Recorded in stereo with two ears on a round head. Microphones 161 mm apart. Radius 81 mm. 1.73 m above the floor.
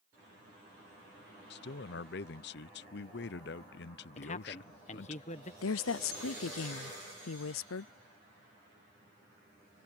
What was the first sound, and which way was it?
A man speaking, 60° left (ahead or behind).